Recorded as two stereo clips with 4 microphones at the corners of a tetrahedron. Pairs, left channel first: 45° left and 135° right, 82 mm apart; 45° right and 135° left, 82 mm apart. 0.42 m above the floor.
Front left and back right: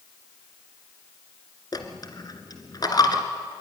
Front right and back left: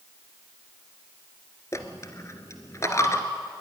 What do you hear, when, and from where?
1.7 s a dropped coin: 10° left, 2.0 m